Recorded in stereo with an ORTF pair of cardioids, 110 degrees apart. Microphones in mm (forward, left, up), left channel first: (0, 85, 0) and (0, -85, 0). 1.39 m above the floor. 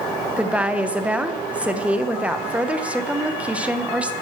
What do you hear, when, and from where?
0.4 s a woman speaking: 5° right, 0.8 m